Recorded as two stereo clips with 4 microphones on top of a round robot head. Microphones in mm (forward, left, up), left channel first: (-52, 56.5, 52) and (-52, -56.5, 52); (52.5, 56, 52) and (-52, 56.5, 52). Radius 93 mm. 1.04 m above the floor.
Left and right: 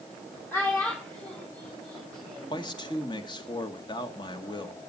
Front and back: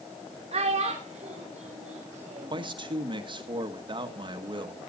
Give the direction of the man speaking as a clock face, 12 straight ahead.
7 o'clock.